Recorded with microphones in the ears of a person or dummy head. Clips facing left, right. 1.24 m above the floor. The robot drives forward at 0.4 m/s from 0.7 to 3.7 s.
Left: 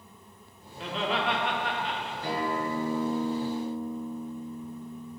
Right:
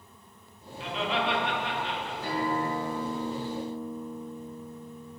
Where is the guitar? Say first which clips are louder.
Right 1 dB; 10° left (ahead or behind), 1.4 m.